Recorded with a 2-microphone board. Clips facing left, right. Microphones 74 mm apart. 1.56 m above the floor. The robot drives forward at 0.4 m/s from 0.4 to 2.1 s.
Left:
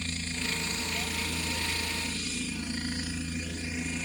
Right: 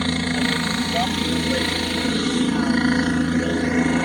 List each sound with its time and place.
0.0 s a helicopter: 65° right (ahead or behind)